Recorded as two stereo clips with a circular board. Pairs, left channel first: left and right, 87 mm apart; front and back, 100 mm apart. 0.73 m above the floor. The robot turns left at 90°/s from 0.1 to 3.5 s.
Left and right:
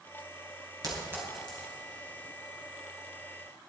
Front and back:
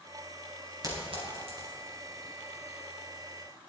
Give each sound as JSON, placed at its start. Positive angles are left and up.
{"t": 0.8, "sound": "a clink", "azimuth_deg": -125, "distance_m": 4.0}